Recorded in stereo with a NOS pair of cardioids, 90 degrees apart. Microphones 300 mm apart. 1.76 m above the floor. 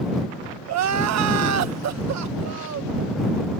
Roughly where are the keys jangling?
No keys jangling in this recording.